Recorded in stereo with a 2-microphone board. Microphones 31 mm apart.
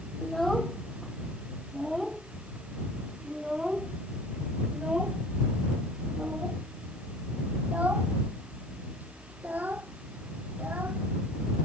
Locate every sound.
0.2 s a child speaking: 10° left (ahead or behind); by 11.1 s 70° right (ahead or behind)